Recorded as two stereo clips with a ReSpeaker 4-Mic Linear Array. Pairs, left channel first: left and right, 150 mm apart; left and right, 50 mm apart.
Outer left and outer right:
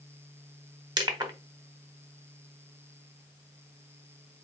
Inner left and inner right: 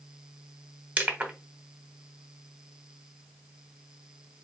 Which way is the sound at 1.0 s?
30° right (ahead or behind).